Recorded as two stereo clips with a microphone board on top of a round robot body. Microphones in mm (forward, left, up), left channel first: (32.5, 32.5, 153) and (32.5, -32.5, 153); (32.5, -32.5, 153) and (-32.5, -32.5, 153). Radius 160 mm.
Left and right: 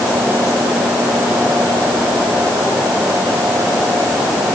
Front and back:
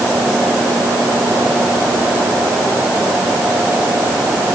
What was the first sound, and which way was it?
Only background noise.